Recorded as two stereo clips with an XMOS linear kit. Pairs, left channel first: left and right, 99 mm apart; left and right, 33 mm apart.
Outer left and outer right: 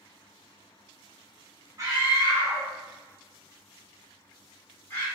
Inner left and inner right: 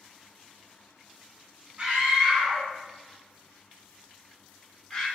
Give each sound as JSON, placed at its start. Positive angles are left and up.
{"t": 1.8, "sound": "a scream", "side_deg": -30, "distance_m": 1.4}